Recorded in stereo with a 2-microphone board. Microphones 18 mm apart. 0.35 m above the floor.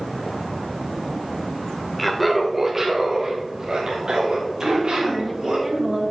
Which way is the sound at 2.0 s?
10° left (ahead or behind).